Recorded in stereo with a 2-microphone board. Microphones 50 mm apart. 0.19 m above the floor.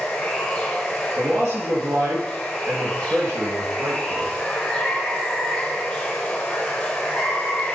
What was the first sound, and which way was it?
Running water, 15° left (ahead or behind).